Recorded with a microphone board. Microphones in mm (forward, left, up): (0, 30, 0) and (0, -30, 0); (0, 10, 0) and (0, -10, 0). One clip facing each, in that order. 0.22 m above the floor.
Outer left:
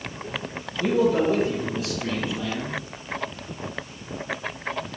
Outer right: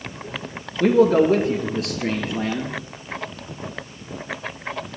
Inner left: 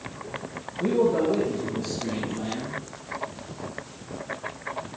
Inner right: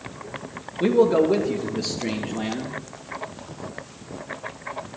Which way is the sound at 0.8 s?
65° right (ahead or behind).